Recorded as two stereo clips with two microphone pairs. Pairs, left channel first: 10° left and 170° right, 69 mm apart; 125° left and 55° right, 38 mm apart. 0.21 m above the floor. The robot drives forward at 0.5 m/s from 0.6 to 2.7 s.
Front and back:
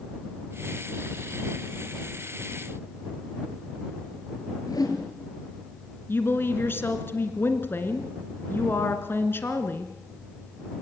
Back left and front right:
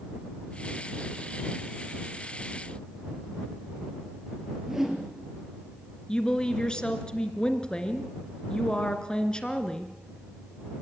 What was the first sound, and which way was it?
A whoosh, 30° left.